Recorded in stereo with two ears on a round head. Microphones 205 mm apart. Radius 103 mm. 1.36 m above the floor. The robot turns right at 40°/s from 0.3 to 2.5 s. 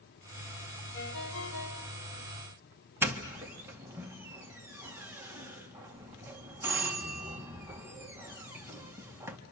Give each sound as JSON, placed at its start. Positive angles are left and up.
{"t": 0.9, "sound": "a ringtone", "azimuth_deg": 65, "distance_m": 3.0}
{"t": 3.0, "sound": "a doorbell", "side_deg": -10, "distance_m": 1.7}